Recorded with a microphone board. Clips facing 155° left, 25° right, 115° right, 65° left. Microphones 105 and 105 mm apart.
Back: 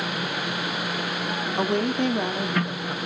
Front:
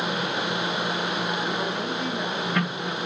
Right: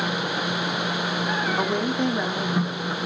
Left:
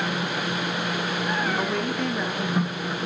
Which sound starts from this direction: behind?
A woman speaking, at 1.6 s.